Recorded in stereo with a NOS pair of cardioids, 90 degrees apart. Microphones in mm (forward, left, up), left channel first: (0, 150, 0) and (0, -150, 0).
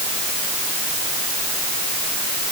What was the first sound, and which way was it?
Only background noise.